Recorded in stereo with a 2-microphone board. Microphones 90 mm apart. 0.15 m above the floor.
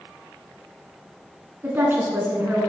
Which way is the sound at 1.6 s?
25° right (ahead or behind).